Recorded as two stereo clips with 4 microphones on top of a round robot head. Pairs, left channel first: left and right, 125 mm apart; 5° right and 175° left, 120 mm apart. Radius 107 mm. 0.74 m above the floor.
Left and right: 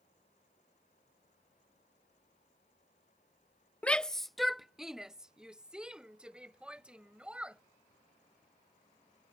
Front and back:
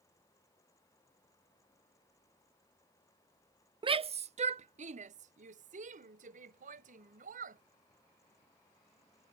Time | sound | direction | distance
3.8 | a shout | 165° left | ?